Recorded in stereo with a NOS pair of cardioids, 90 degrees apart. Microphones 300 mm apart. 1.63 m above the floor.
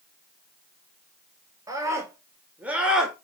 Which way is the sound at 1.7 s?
10° right.